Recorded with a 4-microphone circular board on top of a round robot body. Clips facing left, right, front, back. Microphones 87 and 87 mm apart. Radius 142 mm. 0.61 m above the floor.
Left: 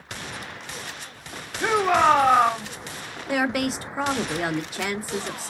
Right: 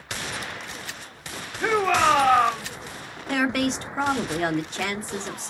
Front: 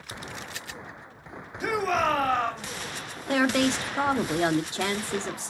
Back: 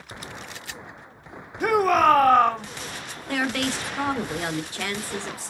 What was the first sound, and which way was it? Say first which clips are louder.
A shout: left 1 dB, back 7 dB; 160° left.